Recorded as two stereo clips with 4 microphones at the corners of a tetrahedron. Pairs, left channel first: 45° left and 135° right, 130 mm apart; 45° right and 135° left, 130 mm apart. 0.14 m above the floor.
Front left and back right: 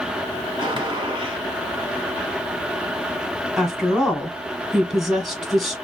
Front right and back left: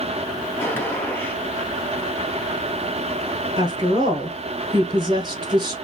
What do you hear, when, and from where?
0.6 s a gunshot: 110° right, 1.1 m
3.6 s a woman speaking: 135° left, 1.3 m